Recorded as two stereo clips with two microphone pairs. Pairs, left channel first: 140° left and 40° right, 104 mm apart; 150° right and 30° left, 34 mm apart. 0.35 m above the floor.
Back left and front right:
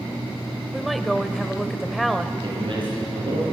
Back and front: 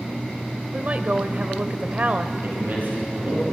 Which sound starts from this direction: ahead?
A man speaking, at 2.4 s.